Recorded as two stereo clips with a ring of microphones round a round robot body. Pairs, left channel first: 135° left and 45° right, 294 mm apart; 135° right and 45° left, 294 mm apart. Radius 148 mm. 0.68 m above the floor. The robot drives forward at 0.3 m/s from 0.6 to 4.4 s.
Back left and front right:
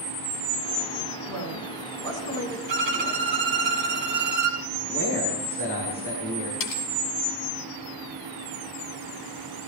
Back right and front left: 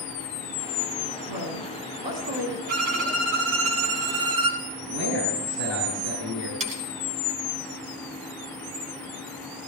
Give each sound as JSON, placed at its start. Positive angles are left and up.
{"t": 1.3, "sound": "a woman speaking", "azimuth_deg": 55, "distance_m": 9.0}
{"t": 2.7, "sound": "a violin", "azimuth_deg": 5, "distance_m": 2.5}
{"t": 4.8, "sound": "a man speaking", "azimuth_deg": 50, "distance_m": 5.5}
{"t": 6.6, "sound": "cutlery clinking", "azimuth_deg": 115, "distance_m": 3.0}